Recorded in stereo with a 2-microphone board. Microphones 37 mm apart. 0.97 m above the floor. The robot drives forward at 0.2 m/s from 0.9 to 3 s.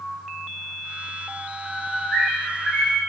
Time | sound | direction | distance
1.6 | a bird | 25° left (ahead or behind) | 1.2 m